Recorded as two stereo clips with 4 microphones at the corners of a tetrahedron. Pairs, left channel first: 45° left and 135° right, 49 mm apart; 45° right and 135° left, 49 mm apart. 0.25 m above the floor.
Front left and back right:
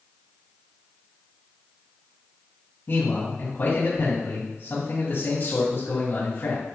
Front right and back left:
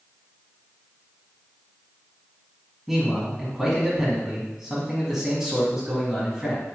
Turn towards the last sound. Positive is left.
turn(degrees=55)